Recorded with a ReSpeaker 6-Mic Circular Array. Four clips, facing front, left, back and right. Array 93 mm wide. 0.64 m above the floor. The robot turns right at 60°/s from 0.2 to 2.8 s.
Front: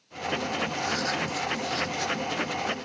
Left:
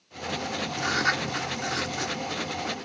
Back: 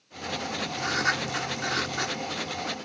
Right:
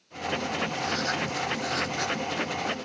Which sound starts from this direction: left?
Writing, at 0.8 s.